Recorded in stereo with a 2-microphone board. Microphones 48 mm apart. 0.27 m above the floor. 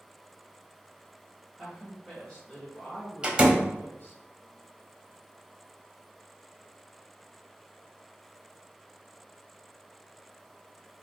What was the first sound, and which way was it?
A woman speaking, centre (ahead or behind).